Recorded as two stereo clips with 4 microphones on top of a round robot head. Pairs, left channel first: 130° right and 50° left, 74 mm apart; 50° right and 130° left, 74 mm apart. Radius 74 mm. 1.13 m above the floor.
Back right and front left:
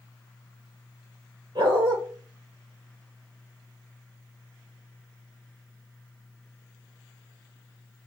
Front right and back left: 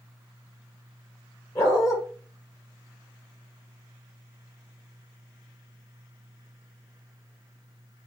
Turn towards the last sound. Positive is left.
turn(degrees=10)